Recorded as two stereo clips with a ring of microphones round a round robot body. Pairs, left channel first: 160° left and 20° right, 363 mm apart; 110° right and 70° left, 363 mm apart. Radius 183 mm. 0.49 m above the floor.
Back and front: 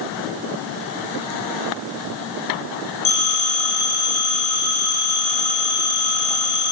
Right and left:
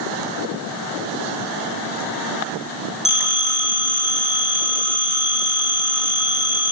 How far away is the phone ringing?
About 5 m.